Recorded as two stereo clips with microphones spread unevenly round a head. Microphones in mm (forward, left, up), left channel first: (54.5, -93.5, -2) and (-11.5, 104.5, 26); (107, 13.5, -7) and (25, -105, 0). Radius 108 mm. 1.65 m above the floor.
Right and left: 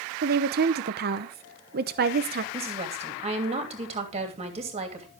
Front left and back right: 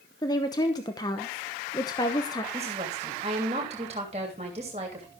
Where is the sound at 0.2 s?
120° left, 0.8 m.